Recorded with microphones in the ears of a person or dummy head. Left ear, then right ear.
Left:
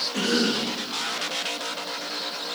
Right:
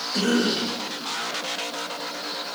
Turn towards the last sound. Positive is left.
turn(degrees=-35)  # may be behind; listen again after turning